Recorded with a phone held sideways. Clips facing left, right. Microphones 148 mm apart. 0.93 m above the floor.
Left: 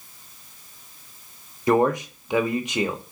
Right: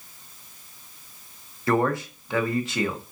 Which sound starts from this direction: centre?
A man speaking, at 1.7 s.